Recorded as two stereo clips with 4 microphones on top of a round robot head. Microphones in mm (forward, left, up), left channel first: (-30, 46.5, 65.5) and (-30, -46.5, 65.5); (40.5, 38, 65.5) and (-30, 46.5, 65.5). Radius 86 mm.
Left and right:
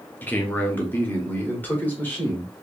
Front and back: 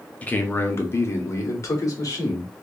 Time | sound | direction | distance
0.2 | a man speaking | 40° left | 0.9 m